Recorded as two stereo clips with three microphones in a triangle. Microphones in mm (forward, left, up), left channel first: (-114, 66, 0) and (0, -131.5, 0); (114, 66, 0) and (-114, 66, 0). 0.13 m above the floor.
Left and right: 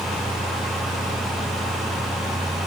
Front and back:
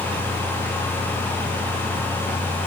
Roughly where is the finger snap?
I don't hear a finger snap.